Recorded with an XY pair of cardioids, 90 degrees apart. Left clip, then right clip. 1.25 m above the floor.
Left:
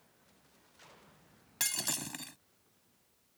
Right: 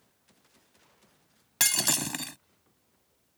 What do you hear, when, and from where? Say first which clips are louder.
1.6 s breaking glass: right 9 dB; 65° right